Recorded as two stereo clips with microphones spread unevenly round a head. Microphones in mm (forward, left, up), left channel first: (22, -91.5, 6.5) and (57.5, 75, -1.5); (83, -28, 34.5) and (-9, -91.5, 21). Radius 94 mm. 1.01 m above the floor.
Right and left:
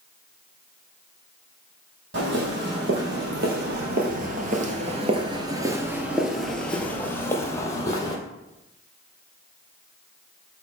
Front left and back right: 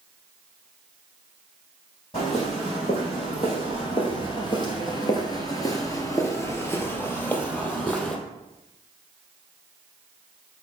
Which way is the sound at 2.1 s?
95° left.